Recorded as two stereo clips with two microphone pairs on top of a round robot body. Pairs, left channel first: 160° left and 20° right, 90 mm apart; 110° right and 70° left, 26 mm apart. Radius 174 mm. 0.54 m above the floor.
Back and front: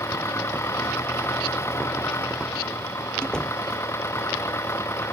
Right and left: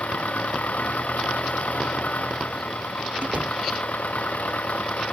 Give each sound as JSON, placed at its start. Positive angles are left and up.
{"t": 0.0, "sound": "an engine running", "azimuth_deg": -135}
{"t": 3.2, "sound": "a door slam", "azimuth_deg": 80}